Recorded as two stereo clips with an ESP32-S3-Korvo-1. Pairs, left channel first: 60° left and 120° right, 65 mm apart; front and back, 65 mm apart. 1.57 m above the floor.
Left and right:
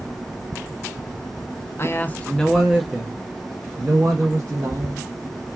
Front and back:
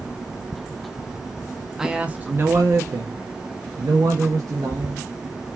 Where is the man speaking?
100° left, 0.7 m; by 5.6 s 160° right, 2.5 m.